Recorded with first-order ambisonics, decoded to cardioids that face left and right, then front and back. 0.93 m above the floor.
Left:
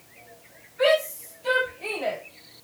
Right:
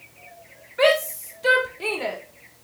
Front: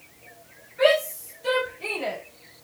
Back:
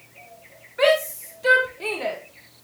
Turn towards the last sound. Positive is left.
turn(degrees=-120)